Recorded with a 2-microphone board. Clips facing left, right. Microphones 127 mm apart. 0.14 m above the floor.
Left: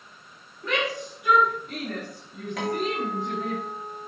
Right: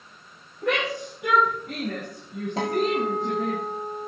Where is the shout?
70° right (ahead or behind), 7 m; by 3.6 s 55° right (ahead or behind), 5 m.